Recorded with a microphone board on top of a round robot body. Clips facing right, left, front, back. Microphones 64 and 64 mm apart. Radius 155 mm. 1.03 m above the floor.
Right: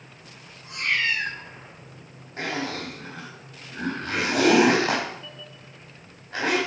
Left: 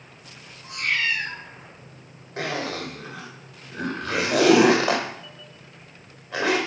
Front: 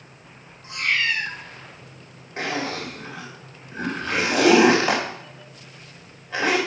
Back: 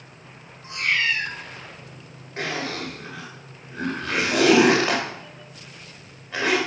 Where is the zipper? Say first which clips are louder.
Left 1 dB, front 1 dB; 90° left, 2.5 m.